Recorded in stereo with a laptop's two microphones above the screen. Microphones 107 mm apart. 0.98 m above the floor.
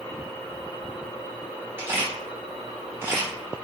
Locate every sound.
1.8 s a camera shutter: 25° right (ahead or behind), 2 m